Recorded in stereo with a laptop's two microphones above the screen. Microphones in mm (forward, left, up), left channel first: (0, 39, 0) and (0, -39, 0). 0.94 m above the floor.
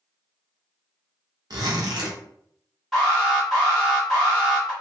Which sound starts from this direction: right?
A zipper, at 1.5 s.